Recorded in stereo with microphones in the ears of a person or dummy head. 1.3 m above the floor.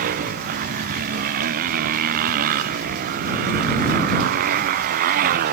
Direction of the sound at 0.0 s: 45° right (ahead or behind).